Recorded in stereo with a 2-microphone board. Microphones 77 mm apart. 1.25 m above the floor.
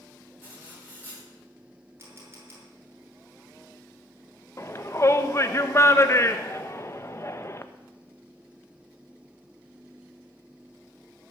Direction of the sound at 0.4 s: 20° right (ahead or behind).